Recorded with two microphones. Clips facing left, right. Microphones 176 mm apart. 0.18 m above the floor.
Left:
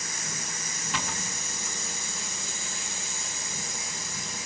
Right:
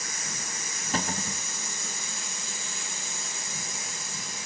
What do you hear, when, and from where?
0.9 s a cupboard door: 40° right (ahead or behind), 0.6 m